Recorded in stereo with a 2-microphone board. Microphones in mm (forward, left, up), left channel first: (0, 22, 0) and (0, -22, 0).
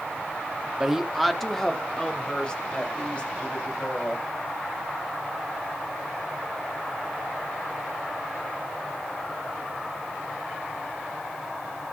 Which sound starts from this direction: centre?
A woman speaking, at 0.8 s.